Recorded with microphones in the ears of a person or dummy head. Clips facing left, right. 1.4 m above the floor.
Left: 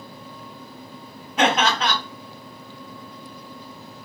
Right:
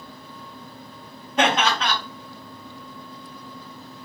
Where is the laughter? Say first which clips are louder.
Left 1 dB; 10° left (ahead or behind), 1.6 m.